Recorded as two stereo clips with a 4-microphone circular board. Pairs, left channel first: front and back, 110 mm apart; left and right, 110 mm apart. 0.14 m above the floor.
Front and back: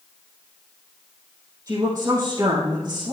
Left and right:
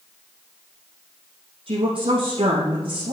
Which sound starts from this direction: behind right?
A woman speaking, at 1.7 s.